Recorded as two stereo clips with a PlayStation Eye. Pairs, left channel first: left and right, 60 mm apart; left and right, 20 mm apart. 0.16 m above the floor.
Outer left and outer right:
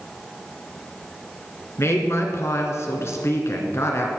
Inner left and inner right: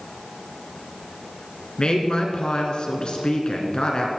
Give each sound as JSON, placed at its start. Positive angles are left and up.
{"t": 1.8, "sound": "a woman speaking", "side_deg": 50, "distance_m": 1.7}